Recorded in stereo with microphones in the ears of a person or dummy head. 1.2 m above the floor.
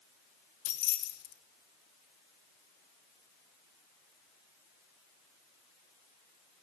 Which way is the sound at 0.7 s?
80° left.